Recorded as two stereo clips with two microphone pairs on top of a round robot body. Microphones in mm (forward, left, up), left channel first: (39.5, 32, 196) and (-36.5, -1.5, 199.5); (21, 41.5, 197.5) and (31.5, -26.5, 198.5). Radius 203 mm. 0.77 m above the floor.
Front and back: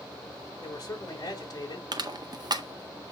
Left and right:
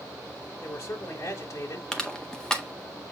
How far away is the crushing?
About 1.6 m.